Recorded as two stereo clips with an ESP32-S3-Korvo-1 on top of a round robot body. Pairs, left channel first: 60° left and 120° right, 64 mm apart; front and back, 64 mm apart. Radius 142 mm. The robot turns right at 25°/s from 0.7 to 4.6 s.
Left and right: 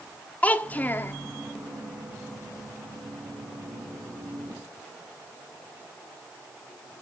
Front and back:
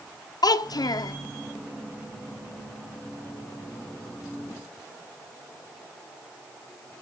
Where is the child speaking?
5° right, 0.6 m; by 1.1 s 5° left, 0.6 m.